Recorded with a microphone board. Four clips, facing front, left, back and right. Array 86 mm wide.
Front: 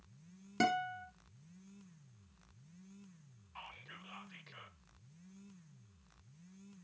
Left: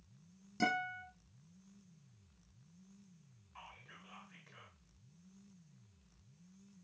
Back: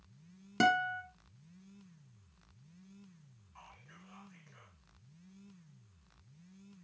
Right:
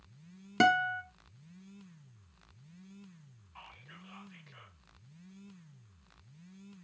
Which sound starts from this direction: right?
A guitar, at 0.6 s.